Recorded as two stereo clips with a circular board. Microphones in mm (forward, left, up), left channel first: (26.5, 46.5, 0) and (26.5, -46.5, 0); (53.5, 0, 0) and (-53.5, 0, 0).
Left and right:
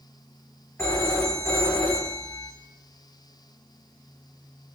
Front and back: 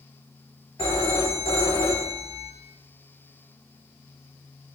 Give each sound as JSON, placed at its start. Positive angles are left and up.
{"t": 0.8, "sound": "a phone ringing", "azimuth_deg": 25, "distance_m": 3.5}